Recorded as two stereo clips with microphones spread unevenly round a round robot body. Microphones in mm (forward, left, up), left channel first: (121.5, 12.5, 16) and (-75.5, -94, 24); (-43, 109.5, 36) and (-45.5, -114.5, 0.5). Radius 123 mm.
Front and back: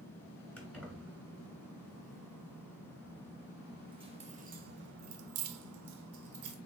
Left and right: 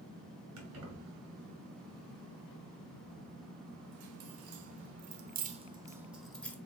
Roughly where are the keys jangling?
Ahead right.